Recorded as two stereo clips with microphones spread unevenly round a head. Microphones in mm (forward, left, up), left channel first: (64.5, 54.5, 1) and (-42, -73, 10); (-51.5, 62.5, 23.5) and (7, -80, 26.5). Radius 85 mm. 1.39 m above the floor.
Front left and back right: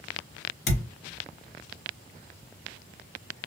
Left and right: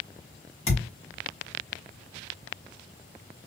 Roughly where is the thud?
Ahead left.